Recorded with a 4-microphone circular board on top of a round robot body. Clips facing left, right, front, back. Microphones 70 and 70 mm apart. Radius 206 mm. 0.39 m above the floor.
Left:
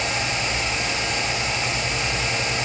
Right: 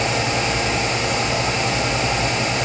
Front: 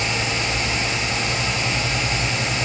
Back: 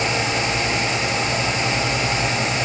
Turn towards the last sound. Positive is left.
No sound to turn to.